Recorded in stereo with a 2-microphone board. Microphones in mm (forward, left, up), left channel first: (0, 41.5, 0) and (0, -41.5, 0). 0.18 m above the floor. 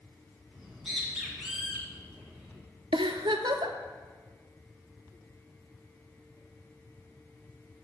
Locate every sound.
0.5 s a bird: 5° right (ahead or behind), 2.0 m
2.9 s a giggle: 80° right, 0.7 m